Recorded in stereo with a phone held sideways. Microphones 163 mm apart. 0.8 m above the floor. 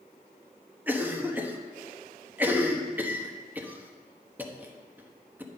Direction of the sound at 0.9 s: 10° right (ahead or behind).